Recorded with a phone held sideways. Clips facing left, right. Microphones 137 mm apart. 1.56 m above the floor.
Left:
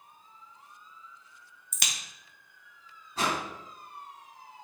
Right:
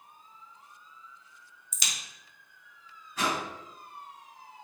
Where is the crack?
60° left (ahead or behind), 0.7 m.